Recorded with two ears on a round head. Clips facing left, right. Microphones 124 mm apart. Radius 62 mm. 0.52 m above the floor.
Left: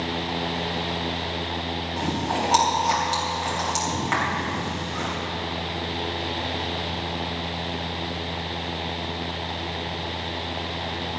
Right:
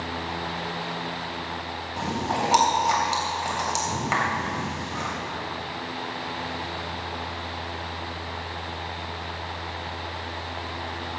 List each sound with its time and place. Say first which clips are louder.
2.0 s chewing: even; 5° right (ahead or behind), 3 m